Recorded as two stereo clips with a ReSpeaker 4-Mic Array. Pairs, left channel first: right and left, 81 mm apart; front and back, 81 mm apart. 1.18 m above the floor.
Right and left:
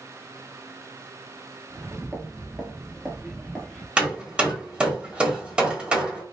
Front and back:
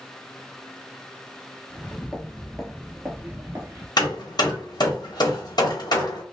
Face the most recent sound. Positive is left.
turn(degrees=15)